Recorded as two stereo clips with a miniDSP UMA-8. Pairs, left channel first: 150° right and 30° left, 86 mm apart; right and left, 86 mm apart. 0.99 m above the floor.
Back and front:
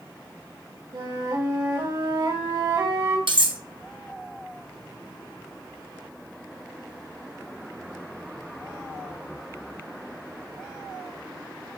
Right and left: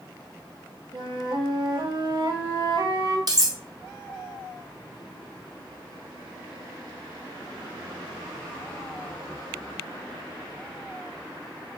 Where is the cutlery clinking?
50° left, 0.9 m.